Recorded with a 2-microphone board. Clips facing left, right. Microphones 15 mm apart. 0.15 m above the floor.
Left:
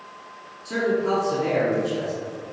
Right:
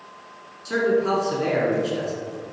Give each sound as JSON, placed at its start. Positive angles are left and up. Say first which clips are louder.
{"t": 0.7, "sound": "a man speaking", "louder": "right 2 dB", "side_deg": -40, "distance_m": 2.0}